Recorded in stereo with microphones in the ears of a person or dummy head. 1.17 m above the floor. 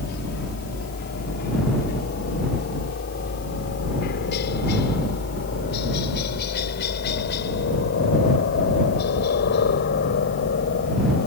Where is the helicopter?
50° left (ahead or behind).